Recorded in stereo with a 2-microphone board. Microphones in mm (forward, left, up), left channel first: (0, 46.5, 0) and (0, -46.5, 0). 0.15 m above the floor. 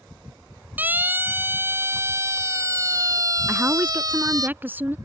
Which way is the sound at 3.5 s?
20° right (ahead or behind).